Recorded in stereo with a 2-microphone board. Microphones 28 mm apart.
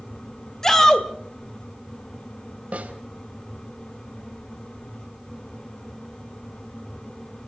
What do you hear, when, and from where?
0.6 s a shout: 15° left (ahead or behind), 3 m
2.7 s a snare drum: 55° right (ahead or behind), 3.5 m